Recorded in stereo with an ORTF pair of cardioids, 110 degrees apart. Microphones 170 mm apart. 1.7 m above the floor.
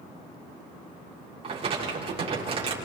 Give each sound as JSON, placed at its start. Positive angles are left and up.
{"t": 1.4, "sound": "crumpling", "azimuth_deg": -35, "distance_m": 6.5}